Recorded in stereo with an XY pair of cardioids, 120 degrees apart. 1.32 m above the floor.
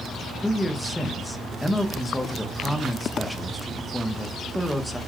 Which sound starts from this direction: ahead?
A man speaking, at 0.4 s.